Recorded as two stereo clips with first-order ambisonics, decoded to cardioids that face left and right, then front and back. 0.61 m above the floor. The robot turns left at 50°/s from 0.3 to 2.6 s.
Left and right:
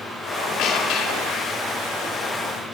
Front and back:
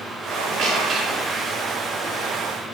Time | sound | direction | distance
0.3 | a squeak | 145° left | 2.5 m